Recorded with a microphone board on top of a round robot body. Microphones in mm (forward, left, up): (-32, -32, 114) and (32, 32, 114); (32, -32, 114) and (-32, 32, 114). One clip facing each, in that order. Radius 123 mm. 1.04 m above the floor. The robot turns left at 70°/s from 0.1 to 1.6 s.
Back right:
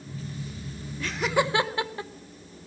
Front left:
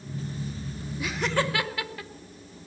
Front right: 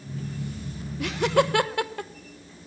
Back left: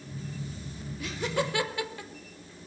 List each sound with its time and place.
1.0 s laughter: 30° right, 1.2 m; by 2.1 s 75° right, 1.2 m